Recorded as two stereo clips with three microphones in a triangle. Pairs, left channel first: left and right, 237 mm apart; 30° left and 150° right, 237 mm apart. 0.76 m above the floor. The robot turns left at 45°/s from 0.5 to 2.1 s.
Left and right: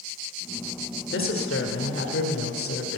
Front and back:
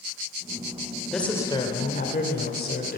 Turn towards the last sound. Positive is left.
turn(degrees=75)